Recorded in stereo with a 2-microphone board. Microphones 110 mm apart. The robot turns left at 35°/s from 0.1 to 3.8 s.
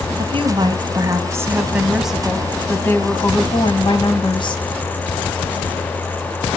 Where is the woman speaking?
110° right, 2 m; by 4.7 s 125° left, 2 m.